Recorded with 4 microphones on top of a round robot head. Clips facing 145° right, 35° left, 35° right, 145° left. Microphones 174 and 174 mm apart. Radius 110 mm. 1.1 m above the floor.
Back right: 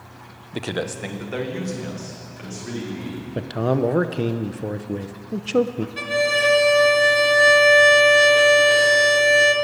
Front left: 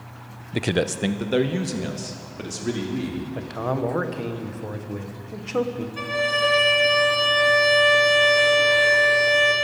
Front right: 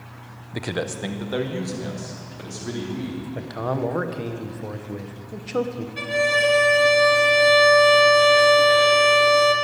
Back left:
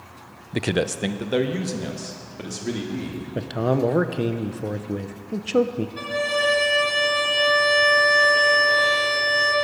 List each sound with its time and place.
0.5 s a man speaking: 105° left, 0.5 m; by 3.2 s 80° left, 3.5 m
3.4 s a man speaking: 175° right, 0.9 m
6.0 s a violin: 100° right, 1.1 m